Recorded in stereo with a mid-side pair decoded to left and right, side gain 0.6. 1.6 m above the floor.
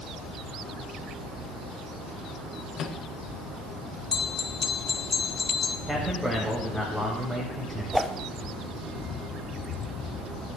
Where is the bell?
30° left, 0.9 m.